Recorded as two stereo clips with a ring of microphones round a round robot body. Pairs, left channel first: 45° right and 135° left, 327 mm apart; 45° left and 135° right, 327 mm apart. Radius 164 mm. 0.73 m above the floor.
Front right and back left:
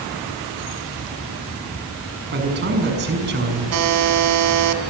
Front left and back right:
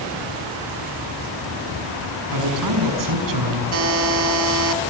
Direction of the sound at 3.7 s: 175° left.